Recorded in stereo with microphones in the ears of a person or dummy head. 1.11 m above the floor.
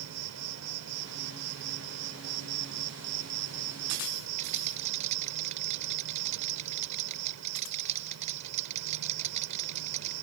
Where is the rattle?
40° right (ahead or behind).